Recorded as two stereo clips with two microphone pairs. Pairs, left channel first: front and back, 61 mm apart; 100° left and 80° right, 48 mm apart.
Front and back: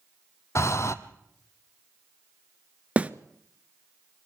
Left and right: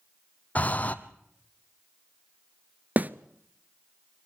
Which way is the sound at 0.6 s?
40° left.